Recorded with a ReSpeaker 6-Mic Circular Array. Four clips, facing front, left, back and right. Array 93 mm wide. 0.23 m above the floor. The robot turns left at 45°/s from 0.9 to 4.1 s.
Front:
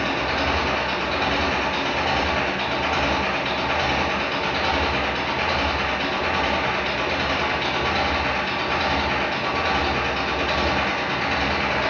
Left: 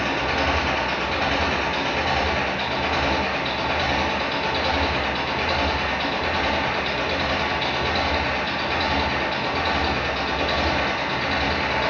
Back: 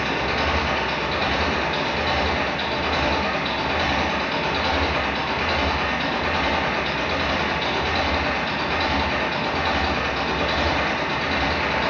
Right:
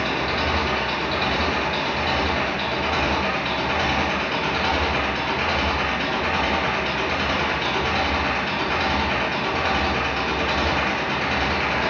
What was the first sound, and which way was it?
An engine running, 85° left.